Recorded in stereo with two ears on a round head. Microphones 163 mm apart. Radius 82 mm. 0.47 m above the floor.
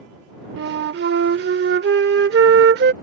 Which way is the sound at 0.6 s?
60° right (ahead or behind).